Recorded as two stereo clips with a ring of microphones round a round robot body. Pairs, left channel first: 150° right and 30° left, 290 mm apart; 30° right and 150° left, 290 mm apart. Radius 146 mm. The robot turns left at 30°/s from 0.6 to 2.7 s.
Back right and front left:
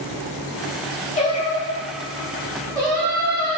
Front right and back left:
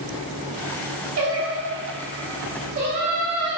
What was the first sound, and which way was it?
Singing, 150° left.